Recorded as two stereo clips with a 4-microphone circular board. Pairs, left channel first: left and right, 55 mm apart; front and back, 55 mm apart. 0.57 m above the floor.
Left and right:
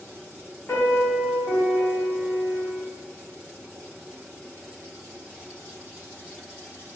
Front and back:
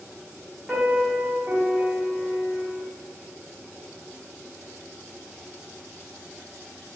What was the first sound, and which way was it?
A piano, 115° left.